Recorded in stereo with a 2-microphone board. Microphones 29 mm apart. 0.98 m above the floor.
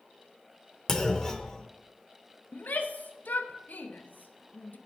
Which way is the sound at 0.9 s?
20° left (ahead or behind).